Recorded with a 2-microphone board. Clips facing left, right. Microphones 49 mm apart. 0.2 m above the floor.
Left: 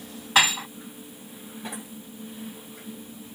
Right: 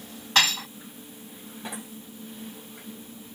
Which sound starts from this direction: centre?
Dishes clattering, at 0.3 s.